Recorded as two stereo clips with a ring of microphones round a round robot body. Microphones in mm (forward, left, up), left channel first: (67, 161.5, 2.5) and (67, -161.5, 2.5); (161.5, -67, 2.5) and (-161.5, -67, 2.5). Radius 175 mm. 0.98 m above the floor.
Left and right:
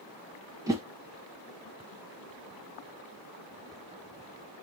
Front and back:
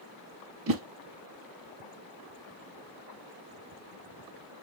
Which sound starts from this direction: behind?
A whoosh, at 0.7 s.